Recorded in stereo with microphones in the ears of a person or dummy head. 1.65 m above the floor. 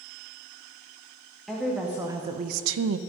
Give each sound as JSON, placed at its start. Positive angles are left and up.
{"t": 1.5, "sound": "a woman speaking", "side_deg": 0, "distance_m": 1.5}